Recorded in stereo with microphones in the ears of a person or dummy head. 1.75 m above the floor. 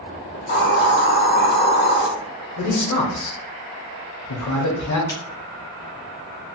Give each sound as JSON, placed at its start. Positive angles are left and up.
{"t": 0.3, "sound": "a hiss", "side_deg": 60, "distance_m": 1.5}
{"t": 2.6, "sound": "a man speaking", "side_deg": 70, "distance_m": 0.8}
{"t": 5.1, "sound": "a crack", "side_deg": 20, "distance_m": 0.9}